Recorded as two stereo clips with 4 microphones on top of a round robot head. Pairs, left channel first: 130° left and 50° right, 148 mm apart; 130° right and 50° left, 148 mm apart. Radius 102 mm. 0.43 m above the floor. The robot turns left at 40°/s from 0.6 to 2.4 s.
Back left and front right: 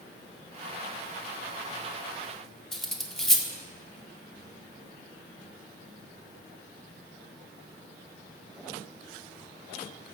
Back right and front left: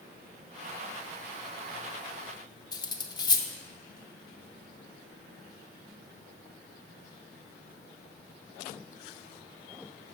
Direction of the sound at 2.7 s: 145° right.